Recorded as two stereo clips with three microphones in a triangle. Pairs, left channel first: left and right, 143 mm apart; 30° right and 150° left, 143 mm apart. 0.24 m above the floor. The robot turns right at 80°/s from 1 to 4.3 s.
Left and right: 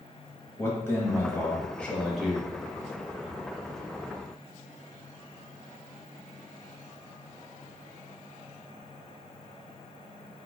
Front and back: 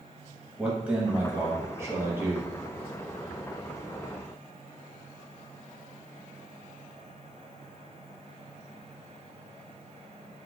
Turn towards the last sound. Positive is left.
turn(degrees=-10)